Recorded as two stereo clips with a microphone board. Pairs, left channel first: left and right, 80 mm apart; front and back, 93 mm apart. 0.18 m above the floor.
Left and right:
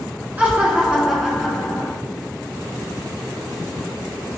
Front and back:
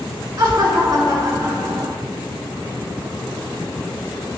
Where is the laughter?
150° right, 2.5 m; by 1.9 s 165° left, 2.5 m.